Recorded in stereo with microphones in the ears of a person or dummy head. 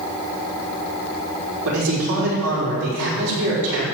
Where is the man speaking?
85° right, 4.5 m.